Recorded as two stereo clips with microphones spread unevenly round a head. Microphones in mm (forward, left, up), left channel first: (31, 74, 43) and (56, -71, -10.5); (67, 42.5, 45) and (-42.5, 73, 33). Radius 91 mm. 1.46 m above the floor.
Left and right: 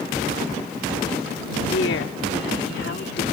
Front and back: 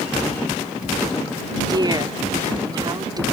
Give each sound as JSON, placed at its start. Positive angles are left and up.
{"t": 1.7, "sound": "a woman speaking", "azimuth_deg": 110}